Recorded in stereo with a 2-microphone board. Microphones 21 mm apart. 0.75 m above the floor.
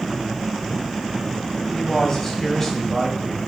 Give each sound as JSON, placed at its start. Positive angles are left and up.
{"t": 1.7, "sound": "a man speaking", "side_deg": 20, "distance_m": 6.0}